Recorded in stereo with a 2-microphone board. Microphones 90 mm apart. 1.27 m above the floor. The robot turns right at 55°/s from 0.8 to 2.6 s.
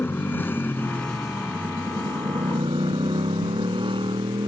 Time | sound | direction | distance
0.0 | a motorcycle | 160° left | ?